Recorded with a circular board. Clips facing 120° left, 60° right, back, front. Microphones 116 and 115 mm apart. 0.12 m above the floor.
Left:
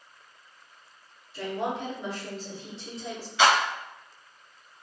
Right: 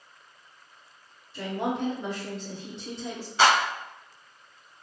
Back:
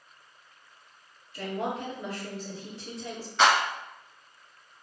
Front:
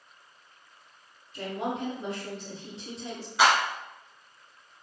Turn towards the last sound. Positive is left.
turn(degrees=-75)